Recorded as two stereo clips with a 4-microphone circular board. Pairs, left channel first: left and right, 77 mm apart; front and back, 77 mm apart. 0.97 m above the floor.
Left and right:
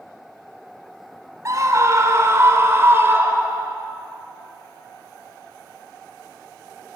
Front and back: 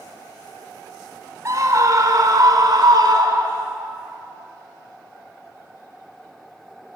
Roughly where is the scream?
Behind right.